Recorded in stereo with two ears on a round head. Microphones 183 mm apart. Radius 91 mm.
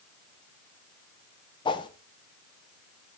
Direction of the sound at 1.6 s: 25° left (ahead or behind).